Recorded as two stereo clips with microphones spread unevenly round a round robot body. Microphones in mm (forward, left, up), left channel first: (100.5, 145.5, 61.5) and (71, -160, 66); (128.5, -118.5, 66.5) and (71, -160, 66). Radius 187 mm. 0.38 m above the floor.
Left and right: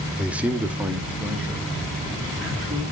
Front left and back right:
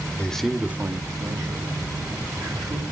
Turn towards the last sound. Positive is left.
turn(degrees=175)